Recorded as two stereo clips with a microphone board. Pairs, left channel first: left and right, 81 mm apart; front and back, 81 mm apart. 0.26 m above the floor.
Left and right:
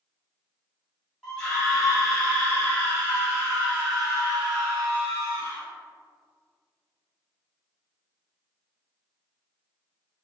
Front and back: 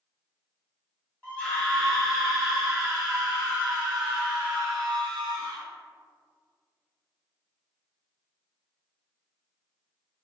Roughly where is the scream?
Ahead left.